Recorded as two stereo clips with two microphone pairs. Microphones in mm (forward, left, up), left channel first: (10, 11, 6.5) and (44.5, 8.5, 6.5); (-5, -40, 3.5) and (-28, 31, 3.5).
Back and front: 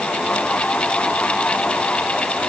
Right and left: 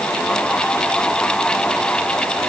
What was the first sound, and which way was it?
Only background noise.